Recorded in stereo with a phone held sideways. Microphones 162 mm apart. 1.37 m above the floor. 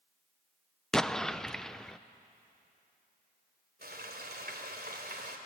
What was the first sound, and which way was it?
An explosion, 5° left (ahead or behind).